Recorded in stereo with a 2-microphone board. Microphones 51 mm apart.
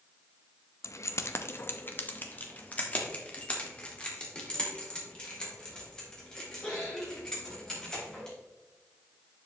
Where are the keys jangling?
65° left (ahead or behind), 0.6 m; by 8.3 s 10° left (ahead or behind), 5 m.